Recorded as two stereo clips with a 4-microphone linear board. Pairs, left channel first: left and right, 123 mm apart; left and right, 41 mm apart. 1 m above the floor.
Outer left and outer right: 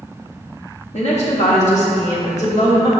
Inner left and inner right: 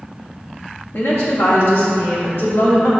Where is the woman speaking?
70° left (ahead or behind), 1.6 m.